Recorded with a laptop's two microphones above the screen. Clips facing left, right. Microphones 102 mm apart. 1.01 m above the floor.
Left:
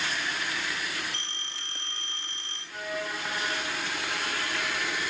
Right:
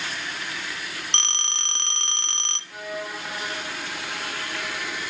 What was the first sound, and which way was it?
A phone ringing, 85° right.